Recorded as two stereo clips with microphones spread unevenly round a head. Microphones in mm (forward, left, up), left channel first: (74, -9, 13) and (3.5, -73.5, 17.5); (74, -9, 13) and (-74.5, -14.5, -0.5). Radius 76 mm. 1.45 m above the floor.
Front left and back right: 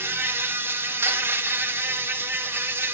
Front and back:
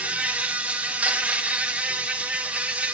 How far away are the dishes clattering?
I don't hear dishes clattering.